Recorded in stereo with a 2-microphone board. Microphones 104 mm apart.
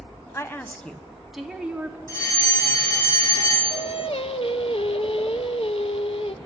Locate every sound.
0.3 s a woman speaking: 25° left (ahead or behind), 1.2 m; by 2.0 s 15° right (ahead or behind), 2 m
2.1 s a fire alarm: 25° left (ahead or behind), 5 m
3.7 s singing: 65° left (ahead or behind), 1.0 m